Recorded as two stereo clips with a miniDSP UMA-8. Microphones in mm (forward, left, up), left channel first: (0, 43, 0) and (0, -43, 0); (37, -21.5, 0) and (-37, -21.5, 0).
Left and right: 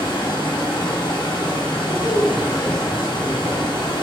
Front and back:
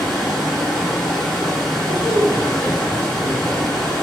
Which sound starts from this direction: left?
Running water, at 0.0 s.